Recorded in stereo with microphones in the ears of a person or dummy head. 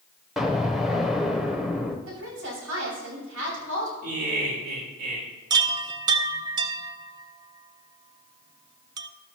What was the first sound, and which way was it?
An explosion, centre (ahead or behind).